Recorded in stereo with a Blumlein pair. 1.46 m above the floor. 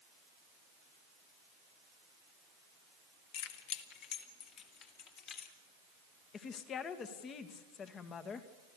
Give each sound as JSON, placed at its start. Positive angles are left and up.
{"t": 3.3, "sound": "keys jangling", "azimuth_deg": 45, "distance_m": 1.7}
{"t": 6.3, "sound": "a woman speaking", "azimuth_deg": 25, "distance_m": 1.9}